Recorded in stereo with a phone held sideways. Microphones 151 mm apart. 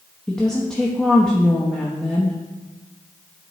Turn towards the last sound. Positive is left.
turn(degrees=5)  # may be behind; listen again after turning